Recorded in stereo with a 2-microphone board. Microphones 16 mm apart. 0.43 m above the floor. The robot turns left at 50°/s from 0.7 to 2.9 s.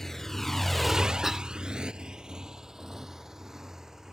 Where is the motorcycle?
35° left (ahead or behind); by 4.1 s 30° right (ahead or behind).